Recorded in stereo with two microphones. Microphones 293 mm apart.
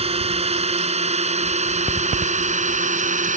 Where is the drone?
20° right (ahead or behind); by 3.4 s 25° right (ahead or behind).